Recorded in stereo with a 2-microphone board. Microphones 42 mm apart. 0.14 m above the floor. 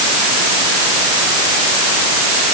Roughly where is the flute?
No flute in this recording.